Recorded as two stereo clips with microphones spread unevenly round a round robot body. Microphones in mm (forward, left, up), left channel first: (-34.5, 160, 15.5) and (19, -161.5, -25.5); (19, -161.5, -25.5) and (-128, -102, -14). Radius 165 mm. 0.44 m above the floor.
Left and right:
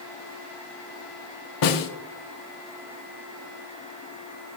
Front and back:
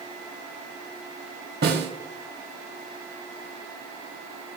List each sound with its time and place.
1.6 s a snare drum: 130° left, 1.7 m